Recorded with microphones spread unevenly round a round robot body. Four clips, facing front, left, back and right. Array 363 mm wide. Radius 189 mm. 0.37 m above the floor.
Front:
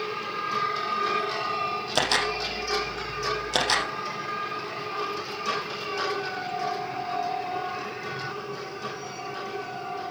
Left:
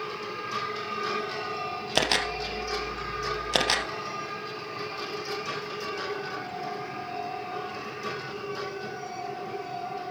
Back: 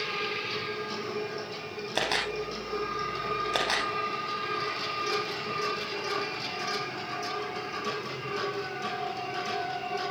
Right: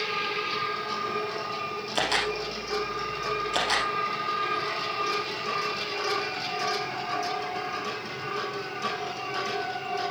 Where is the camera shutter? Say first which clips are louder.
Even, front 3 dB; 75° left, 1.5 m.